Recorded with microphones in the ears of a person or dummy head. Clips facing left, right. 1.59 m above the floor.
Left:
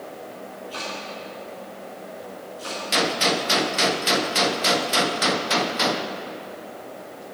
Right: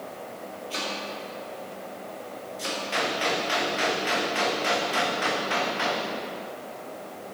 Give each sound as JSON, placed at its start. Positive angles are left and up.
{"t": 0.7, "sound": "chopping", "side_deg": -30, "distance_m": 3.0}
{"t": 2.9, "sound": "a gunshot", "side_deg": 55, "distance_m": 0.6}